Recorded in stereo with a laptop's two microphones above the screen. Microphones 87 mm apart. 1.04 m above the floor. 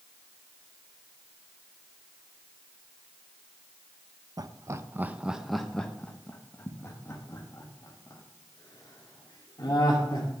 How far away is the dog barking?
No dog barking in this recording.